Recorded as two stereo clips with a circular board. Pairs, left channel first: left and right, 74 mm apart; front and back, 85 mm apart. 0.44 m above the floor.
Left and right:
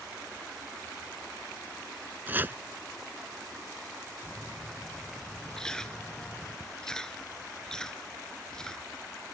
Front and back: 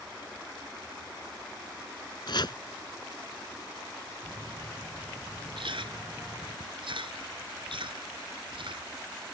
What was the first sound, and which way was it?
Chopping, 30° right.